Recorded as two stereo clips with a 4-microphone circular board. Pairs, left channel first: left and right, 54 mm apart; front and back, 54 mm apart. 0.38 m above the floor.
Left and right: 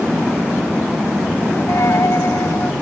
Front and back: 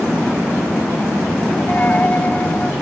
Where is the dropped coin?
60° left.